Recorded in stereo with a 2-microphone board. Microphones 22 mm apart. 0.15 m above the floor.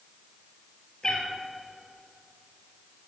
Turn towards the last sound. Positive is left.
turn(degrees=30)  # may be behind; listen again after turning